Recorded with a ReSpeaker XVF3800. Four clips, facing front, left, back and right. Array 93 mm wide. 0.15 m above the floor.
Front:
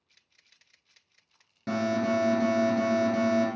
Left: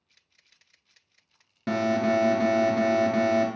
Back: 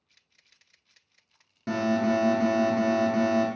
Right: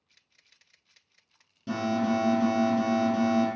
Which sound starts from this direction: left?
An alarm, at 1.7 s.